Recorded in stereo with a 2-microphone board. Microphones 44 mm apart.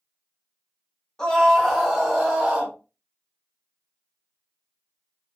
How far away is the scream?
About 1.1 m.